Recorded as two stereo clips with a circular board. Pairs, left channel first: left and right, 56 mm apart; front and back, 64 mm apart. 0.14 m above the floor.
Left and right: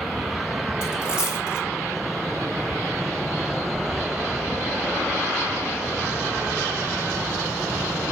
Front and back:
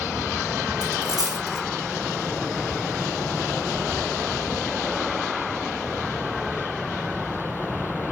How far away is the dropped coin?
About 2.5 m.